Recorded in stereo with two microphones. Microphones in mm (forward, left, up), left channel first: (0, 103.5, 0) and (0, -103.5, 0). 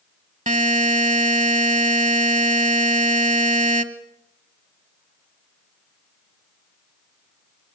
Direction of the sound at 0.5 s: 40° right (ahead or behind).